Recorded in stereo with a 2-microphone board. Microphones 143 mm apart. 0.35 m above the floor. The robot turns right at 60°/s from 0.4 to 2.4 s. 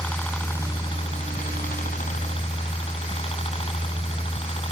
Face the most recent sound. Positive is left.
turn(degrees=130)